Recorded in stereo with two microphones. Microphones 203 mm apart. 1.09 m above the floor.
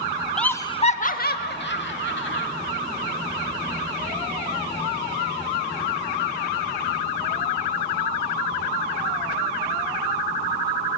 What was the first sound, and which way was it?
Laughter, 5° left (ahead or behind).